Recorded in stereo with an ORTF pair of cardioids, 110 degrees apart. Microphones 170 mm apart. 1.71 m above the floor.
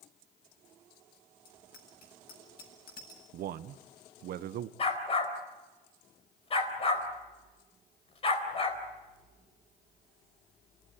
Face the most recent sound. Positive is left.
turn(degrees=35)